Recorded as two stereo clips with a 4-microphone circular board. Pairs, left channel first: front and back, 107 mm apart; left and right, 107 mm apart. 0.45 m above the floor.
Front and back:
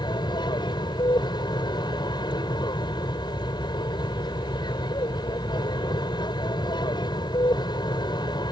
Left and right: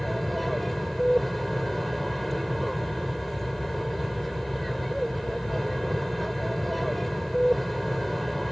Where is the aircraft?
Straight ahead.